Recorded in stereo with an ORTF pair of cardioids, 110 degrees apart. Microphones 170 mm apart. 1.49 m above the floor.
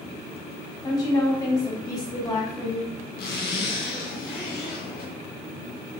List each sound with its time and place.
0.8 s a woman speaking: 20° left, 1.7 m
3.2 s a zipper: 65° left, 1.2 m